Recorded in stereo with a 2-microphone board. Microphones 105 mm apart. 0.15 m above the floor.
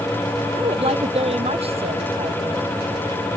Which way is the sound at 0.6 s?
70° right (ahead or behind).